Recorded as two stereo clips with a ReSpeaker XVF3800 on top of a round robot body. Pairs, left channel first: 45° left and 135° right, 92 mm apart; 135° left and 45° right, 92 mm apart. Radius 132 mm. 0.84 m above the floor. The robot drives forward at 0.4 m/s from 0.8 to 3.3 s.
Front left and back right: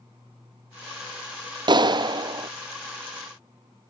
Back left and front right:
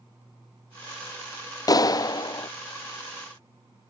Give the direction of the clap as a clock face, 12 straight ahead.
6 o'clock.